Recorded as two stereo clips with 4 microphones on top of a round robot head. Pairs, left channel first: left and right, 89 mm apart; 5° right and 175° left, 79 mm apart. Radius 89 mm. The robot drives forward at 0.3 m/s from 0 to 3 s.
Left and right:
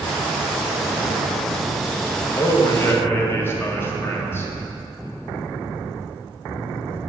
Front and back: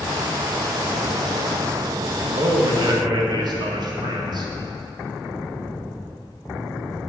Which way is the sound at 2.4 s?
150° left.